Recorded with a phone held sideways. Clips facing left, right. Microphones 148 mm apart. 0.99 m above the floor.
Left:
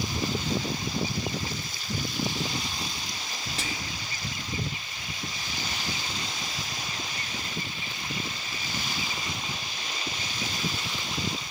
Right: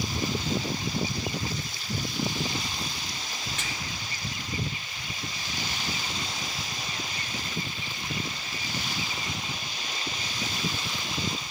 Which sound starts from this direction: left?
Whispering, at 3.6 s.